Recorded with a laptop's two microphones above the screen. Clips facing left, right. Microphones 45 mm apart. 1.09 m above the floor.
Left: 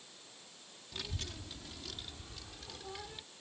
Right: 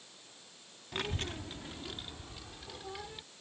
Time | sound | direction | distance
0.9 | a child speaking | 50° right (ahead or behind) | ?